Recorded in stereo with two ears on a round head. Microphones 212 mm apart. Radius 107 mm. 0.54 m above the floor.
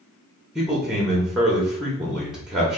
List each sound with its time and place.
0.6 s a man speaking: centre (ahead or behind), 0.7 m